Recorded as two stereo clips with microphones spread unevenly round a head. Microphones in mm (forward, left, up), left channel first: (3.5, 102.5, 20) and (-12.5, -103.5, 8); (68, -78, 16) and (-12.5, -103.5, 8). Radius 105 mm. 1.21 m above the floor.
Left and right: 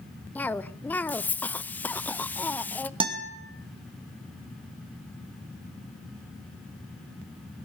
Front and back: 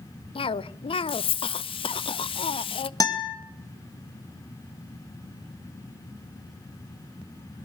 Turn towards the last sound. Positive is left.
turn(degrees=-30)